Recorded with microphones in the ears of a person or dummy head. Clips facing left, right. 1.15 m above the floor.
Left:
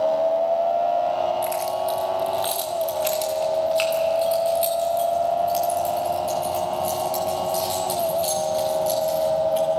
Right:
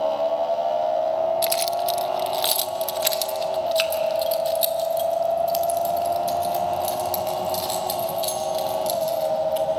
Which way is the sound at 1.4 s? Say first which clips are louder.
Right 1 dB; 50° right (ahead or behind).